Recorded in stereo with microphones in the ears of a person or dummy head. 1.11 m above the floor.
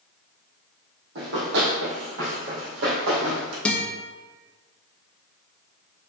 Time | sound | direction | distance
1.1 | running footsteps | 65° right (ahead or behind) | 2.5 m
3.6 | a guitar | 5° left (ahead or behind) | 1.0 m